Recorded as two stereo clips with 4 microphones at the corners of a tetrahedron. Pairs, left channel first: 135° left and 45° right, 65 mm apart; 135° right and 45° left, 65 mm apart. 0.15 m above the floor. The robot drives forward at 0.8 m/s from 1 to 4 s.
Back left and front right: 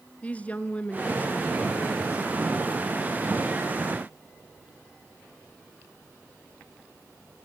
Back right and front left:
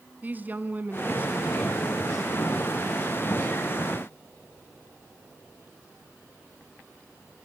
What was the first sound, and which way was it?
A woman speaking, 85° left.